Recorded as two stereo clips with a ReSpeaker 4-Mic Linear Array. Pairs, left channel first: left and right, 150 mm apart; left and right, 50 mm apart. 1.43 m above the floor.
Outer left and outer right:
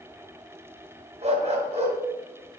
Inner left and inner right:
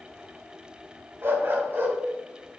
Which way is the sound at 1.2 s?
45° right (ahead or behind).